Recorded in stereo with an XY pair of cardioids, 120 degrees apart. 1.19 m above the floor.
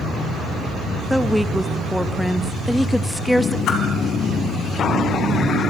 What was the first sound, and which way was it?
A woman speaking, 5° left.